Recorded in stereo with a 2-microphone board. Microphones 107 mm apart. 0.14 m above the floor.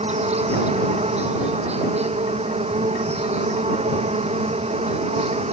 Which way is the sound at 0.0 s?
80° right.